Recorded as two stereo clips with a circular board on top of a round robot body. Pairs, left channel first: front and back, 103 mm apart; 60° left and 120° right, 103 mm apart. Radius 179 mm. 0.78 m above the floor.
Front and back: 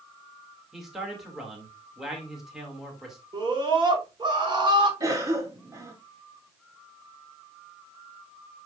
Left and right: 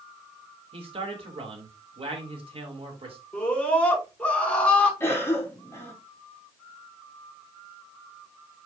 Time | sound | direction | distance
0.7 | a man speaking | 95° right | 3 m
3.3 | a scream | 140° left | 5 m
5.0 | a cough | 125° left | 3 m